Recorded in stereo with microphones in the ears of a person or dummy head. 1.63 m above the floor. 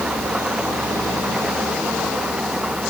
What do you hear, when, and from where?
0.0 s an engine running: 5° right (ahead or behind)